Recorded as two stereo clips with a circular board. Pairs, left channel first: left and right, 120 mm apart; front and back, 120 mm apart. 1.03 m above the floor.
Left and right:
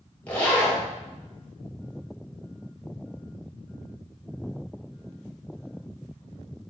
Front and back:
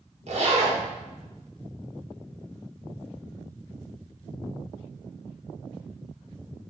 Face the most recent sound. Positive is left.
turn(degrees=165)